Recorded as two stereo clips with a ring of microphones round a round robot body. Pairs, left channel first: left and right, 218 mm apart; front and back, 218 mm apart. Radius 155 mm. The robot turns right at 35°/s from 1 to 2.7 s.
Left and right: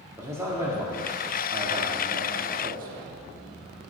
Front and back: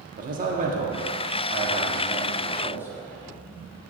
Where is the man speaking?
160° right, 1.3 m; by 3.1 s 105° right, 1.3 m.